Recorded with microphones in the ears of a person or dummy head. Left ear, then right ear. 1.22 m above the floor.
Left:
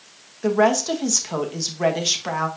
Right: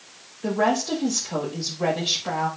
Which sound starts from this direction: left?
A woman speaking, at 0.4 s.